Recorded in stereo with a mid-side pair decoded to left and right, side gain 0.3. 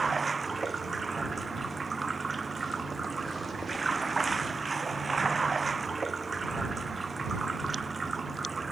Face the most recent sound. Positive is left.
turn(degrees=-35)